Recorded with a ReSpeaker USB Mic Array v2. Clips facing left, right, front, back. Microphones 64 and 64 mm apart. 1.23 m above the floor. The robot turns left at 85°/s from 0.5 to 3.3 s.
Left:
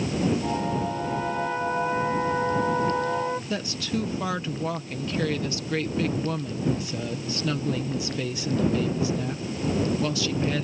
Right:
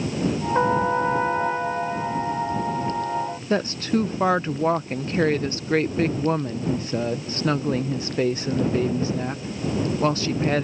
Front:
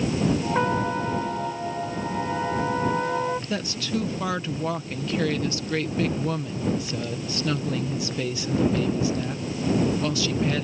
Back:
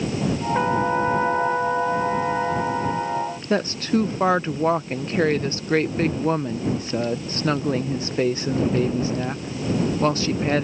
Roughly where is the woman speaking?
Behind right.